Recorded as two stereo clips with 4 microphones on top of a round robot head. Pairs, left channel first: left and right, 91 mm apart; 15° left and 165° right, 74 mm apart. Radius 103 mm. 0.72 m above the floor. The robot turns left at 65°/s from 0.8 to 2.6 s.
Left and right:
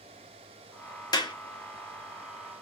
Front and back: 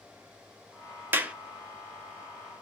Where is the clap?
130° left, 0.9 m; by 1.3 s 115° left, 0.9 m.